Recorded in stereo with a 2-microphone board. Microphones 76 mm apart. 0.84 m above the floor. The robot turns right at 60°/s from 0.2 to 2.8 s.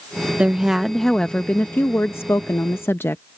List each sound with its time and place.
0.4 s a woman speaking: 30° right; by 3.2 s 110° left